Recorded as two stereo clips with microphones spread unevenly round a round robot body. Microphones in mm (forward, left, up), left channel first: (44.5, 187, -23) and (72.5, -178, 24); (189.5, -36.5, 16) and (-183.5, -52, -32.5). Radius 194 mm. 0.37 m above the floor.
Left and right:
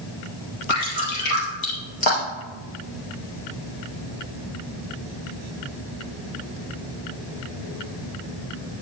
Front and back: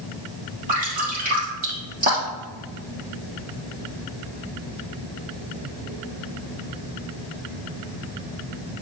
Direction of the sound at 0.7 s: 110° left.